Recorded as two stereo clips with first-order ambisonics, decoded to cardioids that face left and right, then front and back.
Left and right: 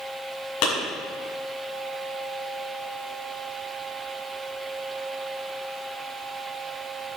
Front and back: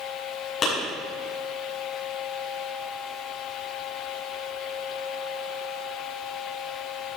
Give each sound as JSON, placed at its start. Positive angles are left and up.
{"t": 0.6, "sound": "a clap", "azimuth_deg": 65, "distance_m": 6.5}